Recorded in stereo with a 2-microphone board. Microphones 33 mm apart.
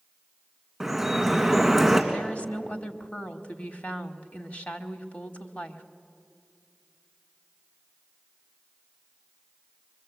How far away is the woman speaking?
About 1.4 m.